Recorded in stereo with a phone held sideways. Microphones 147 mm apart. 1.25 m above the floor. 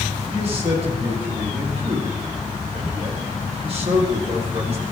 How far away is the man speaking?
About 5.5 m.